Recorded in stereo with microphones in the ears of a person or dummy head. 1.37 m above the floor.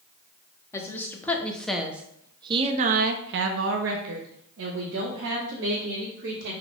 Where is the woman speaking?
20° left (ahead or behind), 1.4 m; by 6.5 s 65° right (ahead or behind), 2.5 m.